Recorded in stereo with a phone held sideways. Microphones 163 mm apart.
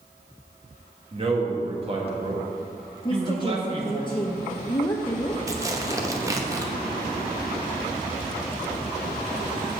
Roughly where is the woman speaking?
Left.